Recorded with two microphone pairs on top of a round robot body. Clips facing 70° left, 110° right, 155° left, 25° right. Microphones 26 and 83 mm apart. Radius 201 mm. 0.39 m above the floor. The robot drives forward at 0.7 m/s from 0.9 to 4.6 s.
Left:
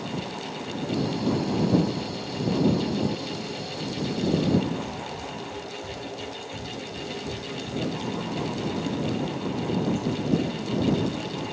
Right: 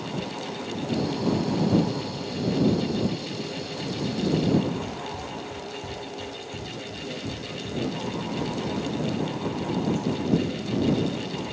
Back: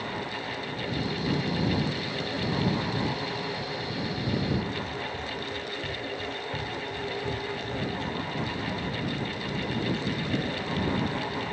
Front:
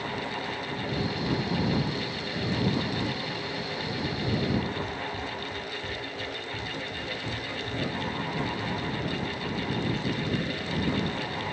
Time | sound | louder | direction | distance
4.8 | running footsteps | even, front 1 dB | 90° right | 1.0 m